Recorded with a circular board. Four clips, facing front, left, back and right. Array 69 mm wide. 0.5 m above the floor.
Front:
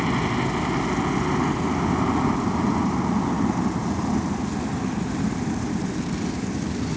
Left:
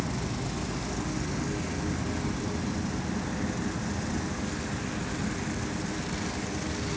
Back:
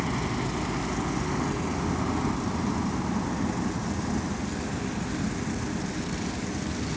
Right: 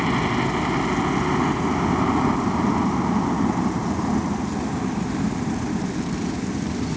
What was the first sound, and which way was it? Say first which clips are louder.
A helicopter: right 12 dB, front 6 dB; 65° right.